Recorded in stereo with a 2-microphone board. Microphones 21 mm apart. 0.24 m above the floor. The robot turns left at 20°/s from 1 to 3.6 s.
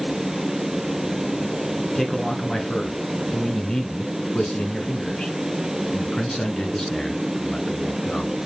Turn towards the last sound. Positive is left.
turn(degrees=125)